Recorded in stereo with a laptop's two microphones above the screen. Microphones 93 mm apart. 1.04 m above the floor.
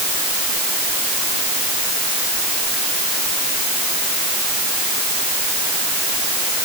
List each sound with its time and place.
Only background noise.